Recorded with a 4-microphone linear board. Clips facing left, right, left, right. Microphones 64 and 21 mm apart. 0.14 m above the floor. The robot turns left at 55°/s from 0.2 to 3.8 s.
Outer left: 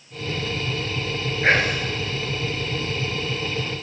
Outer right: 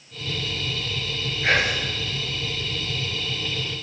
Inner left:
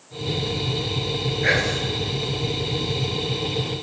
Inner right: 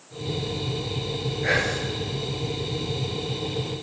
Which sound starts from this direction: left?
Whispering, at 1.4 s.